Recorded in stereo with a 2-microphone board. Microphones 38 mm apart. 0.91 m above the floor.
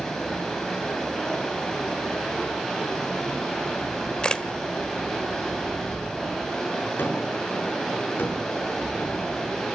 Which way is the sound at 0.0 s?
10° left (ahead or behind).